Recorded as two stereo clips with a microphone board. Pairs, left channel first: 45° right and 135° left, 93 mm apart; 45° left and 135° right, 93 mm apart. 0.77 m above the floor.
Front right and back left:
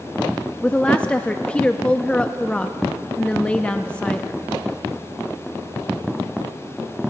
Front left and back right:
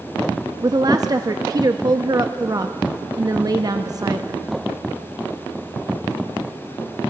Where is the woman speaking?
120° right, 0.5 m.